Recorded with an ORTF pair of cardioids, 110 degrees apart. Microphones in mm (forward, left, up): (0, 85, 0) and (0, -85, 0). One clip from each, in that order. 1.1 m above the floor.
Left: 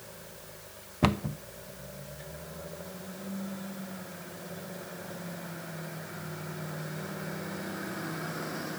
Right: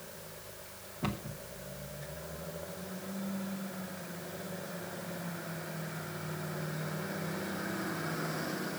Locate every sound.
1.0 s a cupboard door: 65° left, 1.0 m